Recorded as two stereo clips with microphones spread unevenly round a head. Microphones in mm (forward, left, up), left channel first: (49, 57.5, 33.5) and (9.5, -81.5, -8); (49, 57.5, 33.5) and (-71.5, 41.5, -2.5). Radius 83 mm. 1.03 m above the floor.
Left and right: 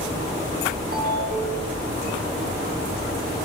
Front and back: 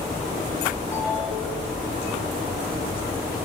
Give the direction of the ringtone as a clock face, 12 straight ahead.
2 o'clock.